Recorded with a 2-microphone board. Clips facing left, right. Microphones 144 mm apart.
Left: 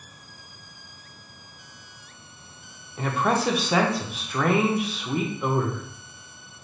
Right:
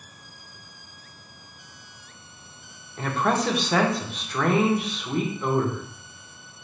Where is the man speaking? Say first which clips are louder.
Even; 5° left (ahead or behind), 0.6 m.